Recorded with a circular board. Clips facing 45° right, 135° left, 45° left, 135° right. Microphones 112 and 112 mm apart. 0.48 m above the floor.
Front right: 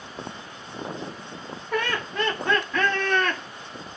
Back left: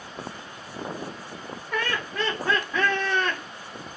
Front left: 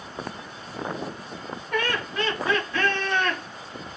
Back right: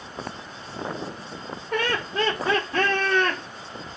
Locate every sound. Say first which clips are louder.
1.7 s laughter: front right 2 dB, back right 1 dB; 105° right, 1.4 m; by 3.4 s 165° right, 1.4 m